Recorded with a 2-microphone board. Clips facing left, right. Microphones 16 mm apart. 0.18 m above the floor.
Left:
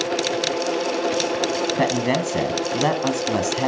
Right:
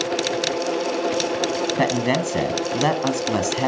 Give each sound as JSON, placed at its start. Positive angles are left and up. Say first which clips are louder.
{"t": 1.8, "sound": "a man speaking", "louder": "right 1 dB", "side_deg": -10, "distance_m": 1.3}